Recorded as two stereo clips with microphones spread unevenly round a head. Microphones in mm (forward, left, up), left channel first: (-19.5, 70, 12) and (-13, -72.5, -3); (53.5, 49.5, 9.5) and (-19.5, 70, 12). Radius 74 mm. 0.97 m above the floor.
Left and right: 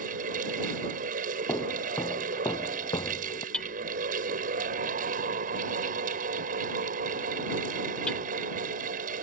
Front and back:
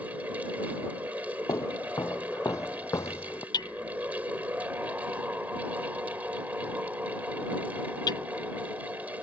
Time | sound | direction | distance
0.0 | a fan | 115° right | ?
1.5 | footsteps | 25° left | ?
3.5 | hammering | 10° left | ?